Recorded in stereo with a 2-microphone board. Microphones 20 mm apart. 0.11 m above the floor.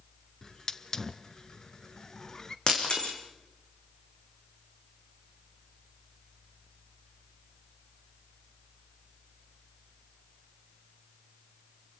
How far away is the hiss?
About 0.6 m.